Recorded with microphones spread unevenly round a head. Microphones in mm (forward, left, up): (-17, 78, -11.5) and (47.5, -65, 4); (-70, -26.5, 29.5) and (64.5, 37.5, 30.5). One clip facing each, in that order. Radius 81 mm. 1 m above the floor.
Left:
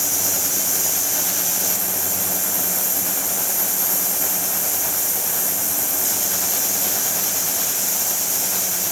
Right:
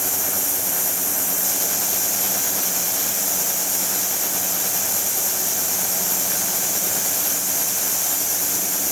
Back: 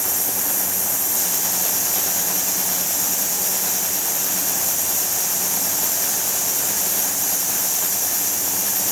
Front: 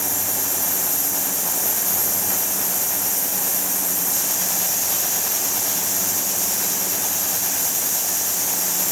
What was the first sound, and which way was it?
Only background noise.